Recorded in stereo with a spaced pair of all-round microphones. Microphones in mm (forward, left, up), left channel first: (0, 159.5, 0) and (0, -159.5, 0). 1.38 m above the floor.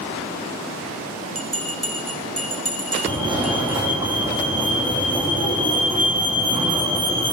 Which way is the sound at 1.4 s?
45° right (ahead or behind).